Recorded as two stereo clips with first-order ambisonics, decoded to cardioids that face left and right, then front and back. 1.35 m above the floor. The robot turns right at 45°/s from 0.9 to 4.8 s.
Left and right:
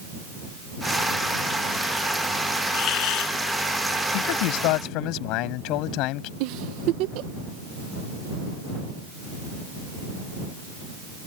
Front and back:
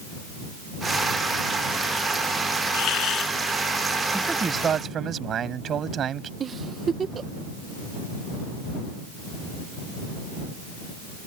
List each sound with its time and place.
2.7 s a hiss: 40° left; by 3.3 s 65° left
4.1 s a man speaking: 90° left; by 6.3 s 120° left
6.4 s a giggle: 115° right